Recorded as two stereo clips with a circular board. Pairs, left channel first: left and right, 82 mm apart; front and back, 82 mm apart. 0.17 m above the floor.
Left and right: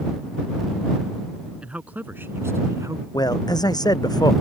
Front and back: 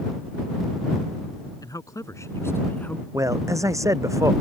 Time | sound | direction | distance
1.6 | a man speaking | 20° right | ?
3.1 | a man speaking | 130° left | ?